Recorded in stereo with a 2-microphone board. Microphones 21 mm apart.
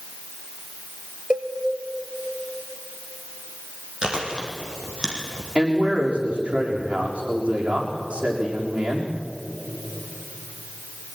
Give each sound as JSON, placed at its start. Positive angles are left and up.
{"t": 1.3, "sound": "a cowbell", "side_deg": -45, "distance_m": 1.7}
{"t": 4.0, "sound": "chewing", "side_deg": -40, "distance_m": 4.5}
{"t": 5.5, "sound": "a man speaking", "side_deg": -65, "distance_m": 6.5}